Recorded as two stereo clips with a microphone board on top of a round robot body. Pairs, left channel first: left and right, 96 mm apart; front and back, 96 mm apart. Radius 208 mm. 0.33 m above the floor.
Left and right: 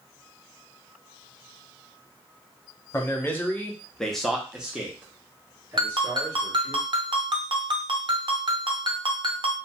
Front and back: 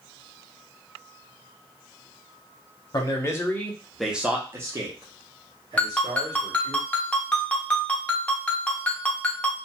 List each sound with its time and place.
2.9 s a man speaking: 35° left, 1.2 m; by 6.8 s 155° right, 2 m
5.8 s a ringtone: 75° right, 1.0 m